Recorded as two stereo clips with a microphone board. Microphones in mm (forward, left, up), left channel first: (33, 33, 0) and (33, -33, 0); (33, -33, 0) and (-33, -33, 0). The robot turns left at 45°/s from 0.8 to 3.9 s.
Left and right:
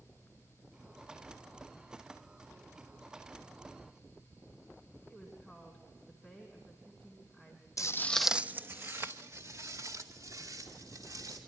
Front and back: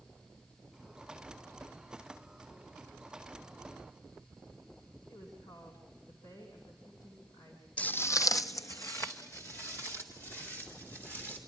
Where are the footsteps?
65° left, 0.6 m; by 11.4 s 60° right, 4.5 m.